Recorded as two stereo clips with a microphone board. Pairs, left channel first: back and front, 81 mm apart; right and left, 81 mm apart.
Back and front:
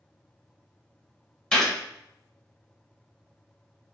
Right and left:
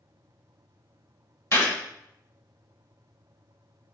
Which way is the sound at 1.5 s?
110° right.